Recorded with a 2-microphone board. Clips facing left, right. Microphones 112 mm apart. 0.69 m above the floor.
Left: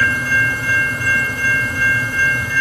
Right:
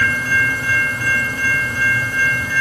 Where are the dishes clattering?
I don't hear dishes clattering.